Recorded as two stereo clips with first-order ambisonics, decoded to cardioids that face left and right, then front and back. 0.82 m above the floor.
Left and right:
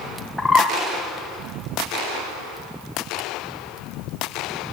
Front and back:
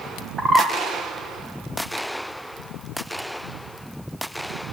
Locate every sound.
0.4 s a bird: 155° left, 0.5 m